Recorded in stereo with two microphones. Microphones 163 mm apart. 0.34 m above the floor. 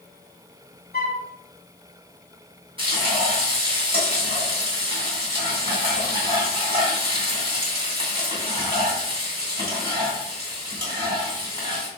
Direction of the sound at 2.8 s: 30° right (ahead or behind).